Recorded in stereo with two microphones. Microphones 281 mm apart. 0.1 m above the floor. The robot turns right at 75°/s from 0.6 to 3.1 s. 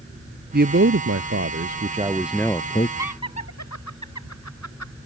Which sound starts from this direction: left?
Laughter, at 3.0 s.